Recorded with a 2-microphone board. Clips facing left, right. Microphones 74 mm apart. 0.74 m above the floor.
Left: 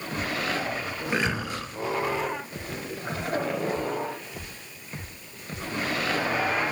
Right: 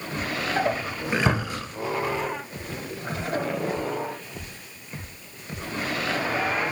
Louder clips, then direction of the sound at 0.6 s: Right 5 dB; 65° right (ahead or behind).